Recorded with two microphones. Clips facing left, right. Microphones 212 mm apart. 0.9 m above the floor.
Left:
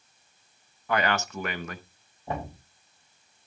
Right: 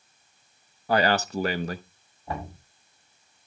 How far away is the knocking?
About 5.5 m.